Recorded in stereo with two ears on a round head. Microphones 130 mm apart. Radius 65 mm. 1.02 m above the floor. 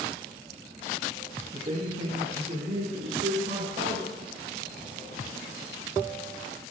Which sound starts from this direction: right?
A man speaking, at 1.5 s.